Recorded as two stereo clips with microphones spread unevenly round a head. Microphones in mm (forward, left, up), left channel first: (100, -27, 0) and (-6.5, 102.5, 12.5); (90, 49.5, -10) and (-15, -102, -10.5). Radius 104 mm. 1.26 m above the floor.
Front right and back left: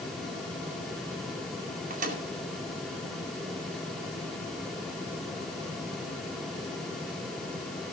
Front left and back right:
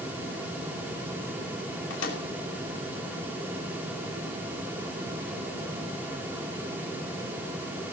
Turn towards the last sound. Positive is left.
turn(degrees=95)